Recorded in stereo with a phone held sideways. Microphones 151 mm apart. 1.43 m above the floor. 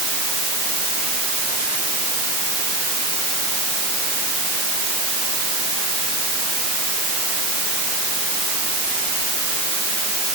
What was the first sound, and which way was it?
Only background noise.